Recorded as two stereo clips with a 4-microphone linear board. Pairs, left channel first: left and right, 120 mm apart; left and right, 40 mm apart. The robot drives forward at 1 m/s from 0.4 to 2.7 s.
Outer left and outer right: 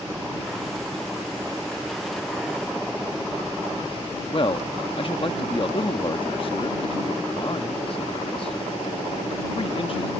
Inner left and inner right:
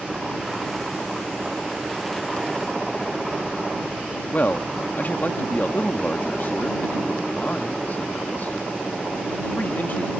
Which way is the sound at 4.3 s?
50° left (ahead or behind).